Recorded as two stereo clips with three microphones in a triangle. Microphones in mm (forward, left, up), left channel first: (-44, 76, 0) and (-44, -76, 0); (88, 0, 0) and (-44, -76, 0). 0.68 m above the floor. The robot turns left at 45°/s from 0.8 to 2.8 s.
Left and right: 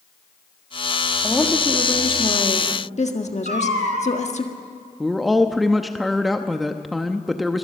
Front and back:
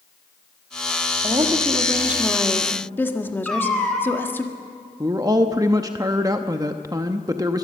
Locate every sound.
1.2 s a woman speaking: 170° left, 1.6 m; by 4.5 s 100° left, 1.6 m
3.5 s a cat meowing: 55° right, 3 m
5.0 s a man speaking: straight behind, 0.8 m